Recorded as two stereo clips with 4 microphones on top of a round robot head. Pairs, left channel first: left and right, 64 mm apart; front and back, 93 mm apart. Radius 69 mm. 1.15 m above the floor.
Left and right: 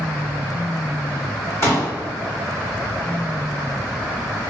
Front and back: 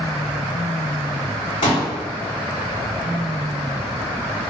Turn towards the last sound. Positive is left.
turn(degrees=40)